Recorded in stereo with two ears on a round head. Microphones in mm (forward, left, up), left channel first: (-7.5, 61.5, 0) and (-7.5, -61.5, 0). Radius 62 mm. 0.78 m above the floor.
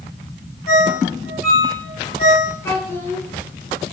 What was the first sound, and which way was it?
A ringtone, 60° left (ahead or behind).